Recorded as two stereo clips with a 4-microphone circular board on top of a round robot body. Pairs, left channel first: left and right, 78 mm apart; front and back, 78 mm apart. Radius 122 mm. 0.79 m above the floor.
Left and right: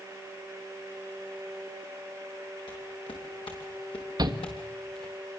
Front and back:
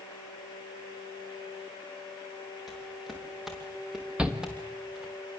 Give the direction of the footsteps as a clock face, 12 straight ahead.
9 o'clock.